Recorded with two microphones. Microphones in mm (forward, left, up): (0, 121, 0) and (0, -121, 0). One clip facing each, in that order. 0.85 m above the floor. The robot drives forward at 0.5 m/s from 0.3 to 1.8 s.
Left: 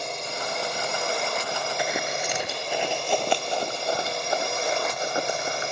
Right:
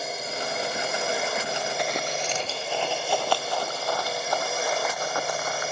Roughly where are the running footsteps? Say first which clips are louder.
Even; centre.